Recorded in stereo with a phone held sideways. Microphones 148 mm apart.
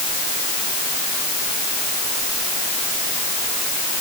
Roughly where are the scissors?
I don't hear scissors.